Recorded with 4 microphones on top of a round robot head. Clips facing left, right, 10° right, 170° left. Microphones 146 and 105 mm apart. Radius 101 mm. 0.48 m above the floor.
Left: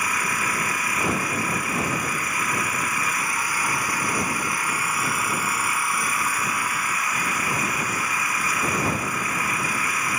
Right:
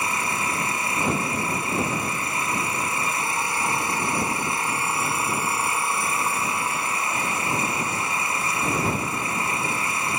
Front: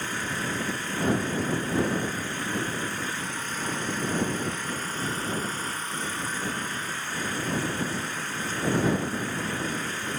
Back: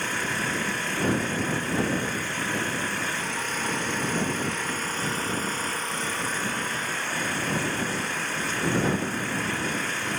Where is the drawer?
I don't hear a drawer.